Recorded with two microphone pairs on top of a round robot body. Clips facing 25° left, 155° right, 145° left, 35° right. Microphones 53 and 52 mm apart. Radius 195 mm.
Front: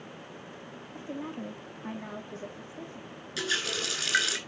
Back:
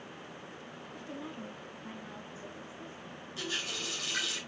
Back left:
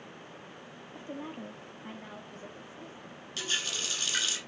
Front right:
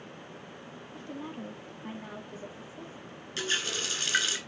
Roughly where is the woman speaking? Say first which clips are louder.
Front 6 dB, even; left.